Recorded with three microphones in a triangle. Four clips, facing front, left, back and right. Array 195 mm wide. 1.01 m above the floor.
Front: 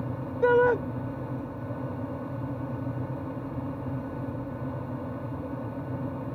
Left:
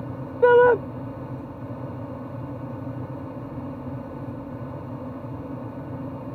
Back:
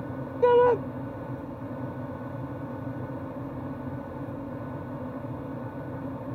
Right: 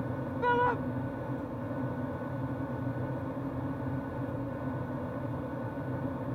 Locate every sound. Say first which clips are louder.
0.4 s a shout: left 13 dB, back 2 dB; 100° left